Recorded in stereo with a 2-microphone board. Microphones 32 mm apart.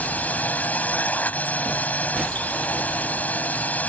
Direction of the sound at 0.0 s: 60° left (ahead or behind).